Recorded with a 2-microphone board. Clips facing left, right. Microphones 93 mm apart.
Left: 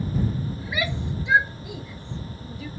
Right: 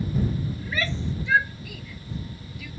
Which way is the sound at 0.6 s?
10° left (ahead or behind).